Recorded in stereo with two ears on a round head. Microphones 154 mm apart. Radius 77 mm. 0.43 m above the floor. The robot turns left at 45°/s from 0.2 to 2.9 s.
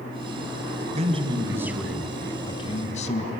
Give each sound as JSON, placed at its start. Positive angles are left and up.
{"t": 0.9, "sound": "a man speaking", "azimuth_deg": -140, "distance_m": 4.0}